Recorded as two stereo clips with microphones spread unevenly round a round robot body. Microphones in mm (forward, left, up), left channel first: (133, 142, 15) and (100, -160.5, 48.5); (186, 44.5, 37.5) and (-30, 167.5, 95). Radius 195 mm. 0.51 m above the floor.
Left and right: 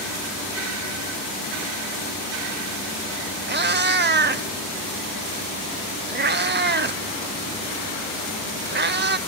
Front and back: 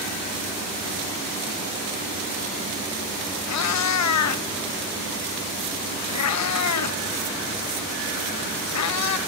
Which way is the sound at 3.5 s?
35° right.